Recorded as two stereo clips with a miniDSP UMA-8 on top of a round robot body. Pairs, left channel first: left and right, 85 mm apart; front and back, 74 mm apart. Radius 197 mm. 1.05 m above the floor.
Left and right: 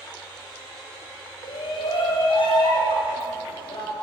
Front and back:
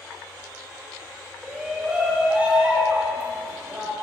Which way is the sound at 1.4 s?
100° left.